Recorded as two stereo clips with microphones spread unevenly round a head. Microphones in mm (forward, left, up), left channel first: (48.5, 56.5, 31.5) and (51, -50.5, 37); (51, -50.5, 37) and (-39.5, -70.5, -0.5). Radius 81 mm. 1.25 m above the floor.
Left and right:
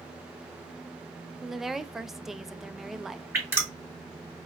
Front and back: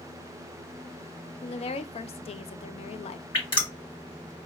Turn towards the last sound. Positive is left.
turn(degrees=-15)